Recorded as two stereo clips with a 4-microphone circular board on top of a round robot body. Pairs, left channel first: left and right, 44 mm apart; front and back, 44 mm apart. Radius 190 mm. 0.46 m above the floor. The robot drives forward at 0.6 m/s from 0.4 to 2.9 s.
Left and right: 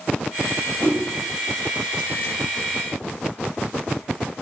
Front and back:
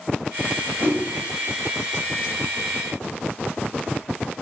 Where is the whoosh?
45° right, 4.5 m.